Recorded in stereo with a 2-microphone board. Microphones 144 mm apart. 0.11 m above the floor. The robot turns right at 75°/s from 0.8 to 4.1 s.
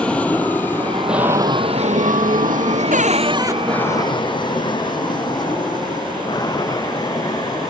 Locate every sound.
0.0 s an aircraft: 10° left (ahead or behind); by 7.7 s 25° left (ahead or behind)
2.9 s a cupboard door: 65° right; by 3.6 s 15° right